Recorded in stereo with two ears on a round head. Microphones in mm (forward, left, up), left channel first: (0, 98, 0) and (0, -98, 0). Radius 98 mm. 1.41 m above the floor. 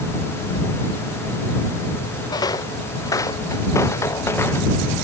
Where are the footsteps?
20° left (ahead or behind); by 4.7 s 10° left (ahead or behind).